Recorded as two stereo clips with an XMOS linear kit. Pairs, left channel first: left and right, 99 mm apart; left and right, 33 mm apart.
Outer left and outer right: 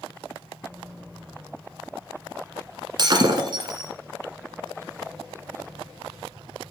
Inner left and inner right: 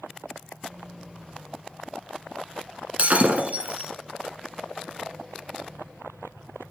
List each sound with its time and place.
3.0 s breaking glass: 50° right (ahead or behind), 1.2 m